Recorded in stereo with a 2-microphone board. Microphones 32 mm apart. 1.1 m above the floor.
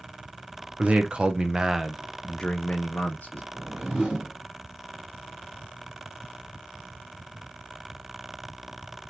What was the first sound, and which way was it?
A man speaking, 50° right (ahead or behind).